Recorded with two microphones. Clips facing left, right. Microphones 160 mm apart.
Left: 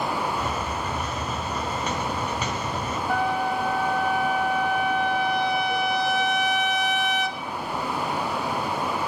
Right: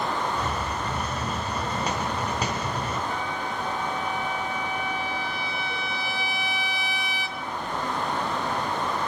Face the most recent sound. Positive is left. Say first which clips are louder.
# left 7 dB
turn(degrees=80)